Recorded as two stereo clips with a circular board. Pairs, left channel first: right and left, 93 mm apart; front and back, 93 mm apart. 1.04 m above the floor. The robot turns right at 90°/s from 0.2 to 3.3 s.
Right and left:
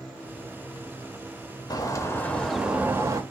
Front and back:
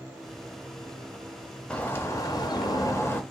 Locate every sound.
1.7 s a bird: 75° right, 0.5 m; by 3.2 s 60° left, 0.5 m